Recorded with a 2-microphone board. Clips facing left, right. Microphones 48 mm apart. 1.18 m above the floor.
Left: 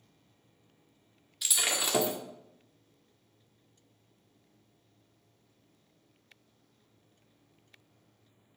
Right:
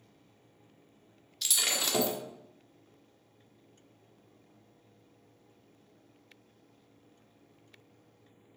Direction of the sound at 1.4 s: 10° left (ahead or behind).